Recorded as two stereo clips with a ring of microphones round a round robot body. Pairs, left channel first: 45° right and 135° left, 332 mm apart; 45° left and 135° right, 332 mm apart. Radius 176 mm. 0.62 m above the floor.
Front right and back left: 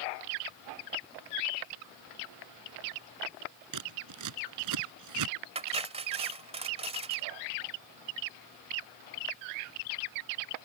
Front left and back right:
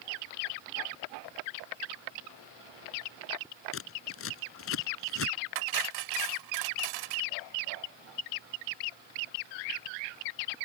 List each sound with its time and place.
3.7 s scissors: 100° left
5.5 s cutlery clinking: 150° right